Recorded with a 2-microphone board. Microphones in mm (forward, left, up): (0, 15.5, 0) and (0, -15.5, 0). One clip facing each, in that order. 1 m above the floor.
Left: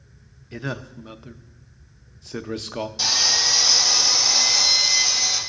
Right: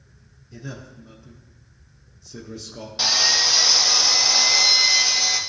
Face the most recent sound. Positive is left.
turn(degrees=-30)  # may be behind; listen again after turning